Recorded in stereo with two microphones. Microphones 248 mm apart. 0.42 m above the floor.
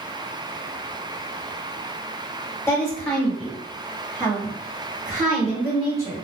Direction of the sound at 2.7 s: 10° left (ahead or behind).